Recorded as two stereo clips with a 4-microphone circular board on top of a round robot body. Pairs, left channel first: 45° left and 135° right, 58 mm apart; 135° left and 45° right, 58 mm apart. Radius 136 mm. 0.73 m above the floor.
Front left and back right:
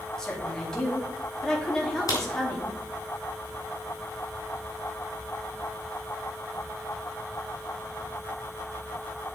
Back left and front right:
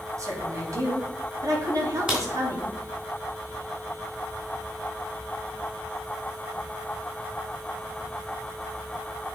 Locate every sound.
0.2 s a woman speaking: 35° right, 2.5 m
2.1 s a crack: 25° left, 2.5 m